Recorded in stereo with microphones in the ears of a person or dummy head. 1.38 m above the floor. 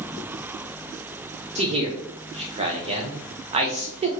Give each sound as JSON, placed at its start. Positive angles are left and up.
{"t": 1.6, "sound": "a man speaking", "side_deg": -35, "distance_m": 0.8}